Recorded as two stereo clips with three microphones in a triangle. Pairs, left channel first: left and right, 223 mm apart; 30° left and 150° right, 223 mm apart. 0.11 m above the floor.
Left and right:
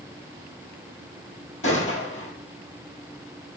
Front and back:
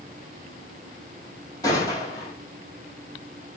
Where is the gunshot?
100° left, 1.6 m.